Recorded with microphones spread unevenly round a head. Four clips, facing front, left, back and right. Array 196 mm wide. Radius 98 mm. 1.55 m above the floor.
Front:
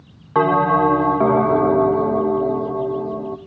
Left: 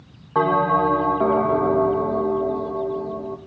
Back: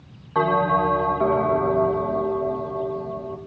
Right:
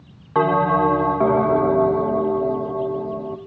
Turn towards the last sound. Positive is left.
turn(degrees=-15)